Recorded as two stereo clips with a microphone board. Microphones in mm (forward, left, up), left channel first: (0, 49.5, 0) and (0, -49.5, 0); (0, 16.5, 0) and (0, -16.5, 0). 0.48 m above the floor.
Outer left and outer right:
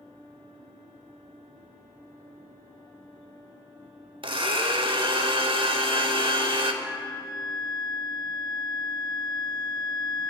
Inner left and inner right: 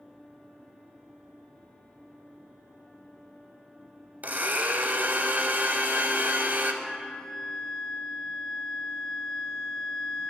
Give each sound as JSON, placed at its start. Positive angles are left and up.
{"t": 4.2, "sound": "a blender", "side_deg": -60, "distance_m": 0.5}
{"t": 6.8, "sound": "a flute", "side_deg": -10, "distance_m": 0.7}